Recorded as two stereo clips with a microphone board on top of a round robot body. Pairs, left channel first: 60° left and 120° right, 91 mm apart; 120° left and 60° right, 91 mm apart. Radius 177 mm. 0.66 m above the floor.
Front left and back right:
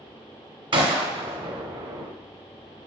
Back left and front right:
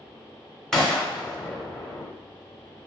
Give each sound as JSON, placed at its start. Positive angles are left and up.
{"t": 0.7, "sound": "a gunshot", "azimuth_deg": -155, "distance_m": 0.7}